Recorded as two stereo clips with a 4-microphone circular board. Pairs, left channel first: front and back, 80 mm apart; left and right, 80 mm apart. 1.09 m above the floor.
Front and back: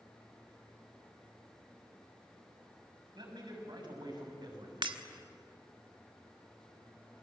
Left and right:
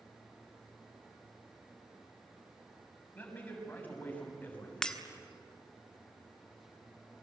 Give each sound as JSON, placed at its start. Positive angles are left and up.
{"t": 3.1, "sound": "a man speaking", "azimuth_deg": 160, "distance_m": 6.5}
{"t": 4.8, "sound": "breaking glass", "azimuth_deg": 170, "distance_m": 1.5}